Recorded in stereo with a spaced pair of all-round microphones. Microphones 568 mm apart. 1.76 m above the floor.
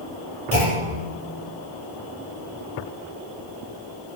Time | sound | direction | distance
0.5 | a clunk | 75° left (ahead or behind) | 6 m